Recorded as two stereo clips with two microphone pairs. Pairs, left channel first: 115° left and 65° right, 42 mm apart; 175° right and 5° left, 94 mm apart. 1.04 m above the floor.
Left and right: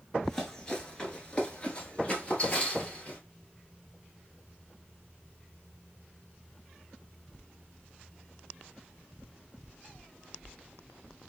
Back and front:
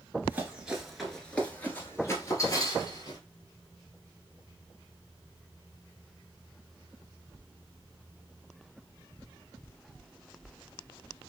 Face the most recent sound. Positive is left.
turn(degrees=165)